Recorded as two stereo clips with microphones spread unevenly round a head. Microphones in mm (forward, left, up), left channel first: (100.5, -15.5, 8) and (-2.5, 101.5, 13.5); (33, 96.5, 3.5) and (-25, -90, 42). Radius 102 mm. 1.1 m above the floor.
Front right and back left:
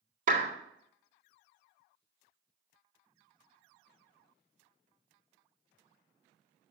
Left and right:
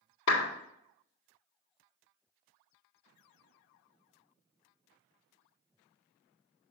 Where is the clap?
100° left, 2.5 m.